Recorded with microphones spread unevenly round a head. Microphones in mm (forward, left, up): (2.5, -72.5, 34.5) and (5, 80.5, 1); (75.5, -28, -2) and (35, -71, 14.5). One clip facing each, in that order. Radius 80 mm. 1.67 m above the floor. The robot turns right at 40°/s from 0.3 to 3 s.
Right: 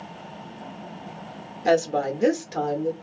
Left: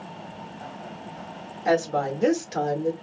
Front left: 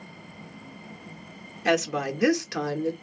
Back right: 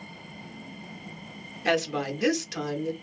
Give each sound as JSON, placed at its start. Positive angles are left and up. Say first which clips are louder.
{"t": 1.6, "sound": "a woman speaking", "louder": "right 2 dB, front left 2 dB", "azimuth_deg": -40, "distance_m": 0.7}